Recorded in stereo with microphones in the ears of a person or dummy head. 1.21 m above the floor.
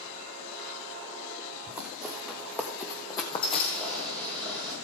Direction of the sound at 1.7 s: 10° right (ahead or behind).